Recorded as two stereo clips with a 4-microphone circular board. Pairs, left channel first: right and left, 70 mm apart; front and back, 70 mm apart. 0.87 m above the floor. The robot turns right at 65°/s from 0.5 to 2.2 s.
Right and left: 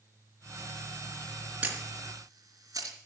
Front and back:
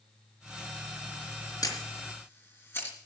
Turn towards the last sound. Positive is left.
turn(degrees=55)